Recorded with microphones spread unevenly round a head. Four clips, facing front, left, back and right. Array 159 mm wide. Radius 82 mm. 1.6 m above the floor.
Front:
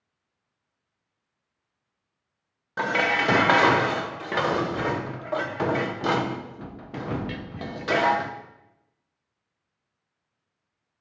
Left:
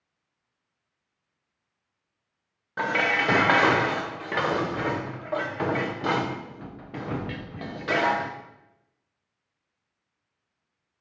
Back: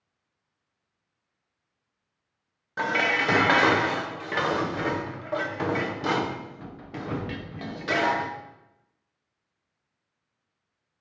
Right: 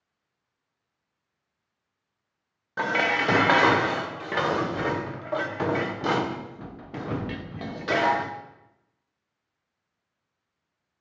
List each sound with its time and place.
2.8 s dishes clattering: 75° right, 0.5 m